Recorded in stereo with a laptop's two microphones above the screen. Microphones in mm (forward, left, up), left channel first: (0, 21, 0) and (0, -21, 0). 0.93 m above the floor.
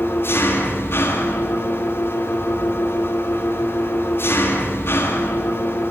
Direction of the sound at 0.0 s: 75° left (ahead or behind).